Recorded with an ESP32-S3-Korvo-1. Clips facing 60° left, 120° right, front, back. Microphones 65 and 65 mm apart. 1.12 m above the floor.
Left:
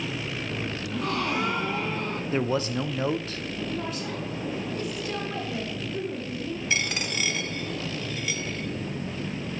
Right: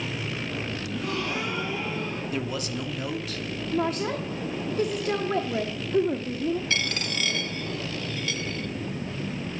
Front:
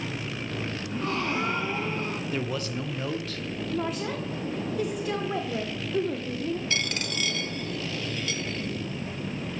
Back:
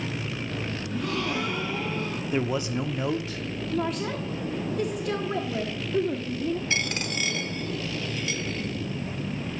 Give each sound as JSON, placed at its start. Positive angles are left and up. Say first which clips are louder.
{"t": 0.9, "sound": "a gasp", "louder": "left 3 dB, even", "azimuth_deg": 45, "distance_m": 1.6}
{"t": 2.3, "sound": "a man speaking", "louder": "left 8 dB, back 7 dB", "azimuth_deg": 115, "distance_m": 0.7}
{"t": 3.7, "sound": "a woman speaking", "louder": "right 5 dB, back 2 dB", "azimuth_deg": -85, "distance_m": 0.7}
{"t": 6.7, "sound": "a dropped coin", "louder": "even, back 2 dB", "azimuth_deg": 125, "distance_m": 0.9}